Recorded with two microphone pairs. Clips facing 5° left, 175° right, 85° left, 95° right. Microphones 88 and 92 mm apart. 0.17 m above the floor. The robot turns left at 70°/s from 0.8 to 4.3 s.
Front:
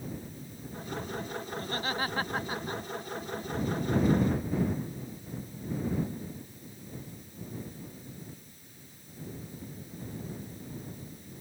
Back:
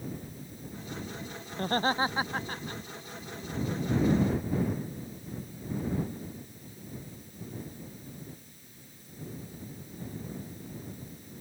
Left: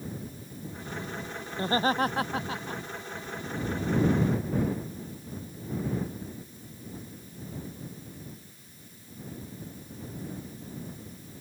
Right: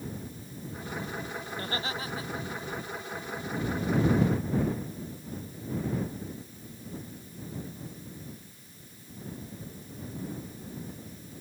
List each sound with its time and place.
1.5 s laughter: 150° left; by 2.8 s 60° left